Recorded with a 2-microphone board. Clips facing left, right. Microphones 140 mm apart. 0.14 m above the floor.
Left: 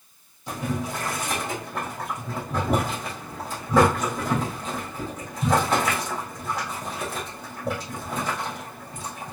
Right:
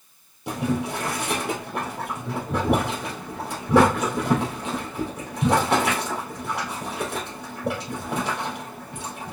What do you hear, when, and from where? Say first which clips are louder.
0.5 s boiling: right 4 dB; 75° right (ahead or behind), 2 m